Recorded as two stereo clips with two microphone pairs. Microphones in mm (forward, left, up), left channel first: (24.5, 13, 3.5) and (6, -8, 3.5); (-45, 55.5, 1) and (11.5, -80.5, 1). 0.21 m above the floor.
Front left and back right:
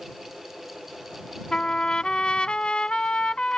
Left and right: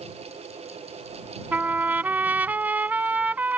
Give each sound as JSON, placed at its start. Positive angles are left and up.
{"t": 1.5, "sound": "a trumpet", "azimuth_deg": 5}